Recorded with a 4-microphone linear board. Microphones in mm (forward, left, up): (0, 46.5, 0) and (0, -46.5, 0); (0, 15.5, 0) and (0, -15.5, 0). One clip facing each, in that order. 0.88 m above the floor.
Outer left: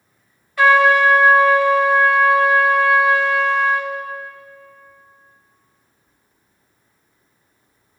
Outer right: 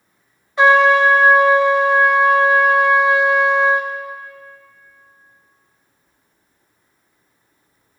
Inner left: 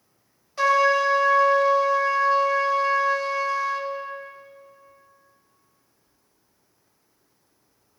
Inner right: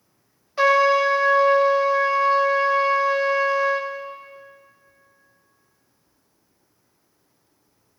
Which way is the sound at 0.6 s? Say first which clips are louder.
Outer right 1 dB, inner right 2 dB; 20° right (ahead or behind).